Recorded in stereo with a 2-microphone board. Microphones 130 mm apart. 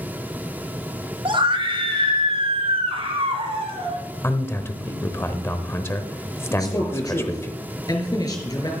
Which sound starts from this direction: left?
A man speaking, at 6.5 s.